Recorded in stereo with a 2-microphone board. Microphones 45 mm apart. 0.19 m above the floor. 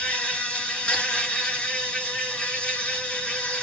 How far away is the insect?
About 1.4 m.